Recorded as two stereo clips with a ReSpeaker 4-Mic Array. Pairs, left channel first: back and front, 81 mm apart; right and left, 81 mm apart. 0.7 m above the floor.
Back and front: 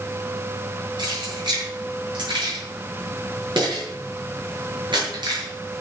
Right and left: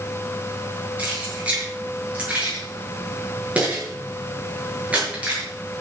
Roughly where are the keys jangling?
Ahead.